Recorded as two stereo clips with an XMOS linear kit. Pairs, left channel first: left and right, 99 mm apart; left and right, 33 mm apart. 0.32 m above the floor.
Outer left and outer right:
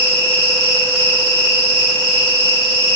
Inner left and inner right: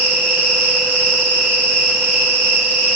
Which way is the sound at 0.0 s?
65° right (ahead or behind).